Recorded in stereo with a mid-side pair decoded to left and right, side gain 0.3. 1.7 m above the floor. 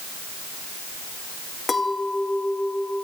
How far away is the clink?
About 2.5 m.